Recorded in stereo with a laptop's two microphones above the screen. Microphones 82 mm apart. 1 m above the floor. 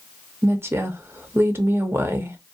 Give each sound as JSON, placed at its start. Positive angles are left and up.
{"t": 0.4, "sound": "a woman speaking", "side_deg": -30, "distance_m": 0.6}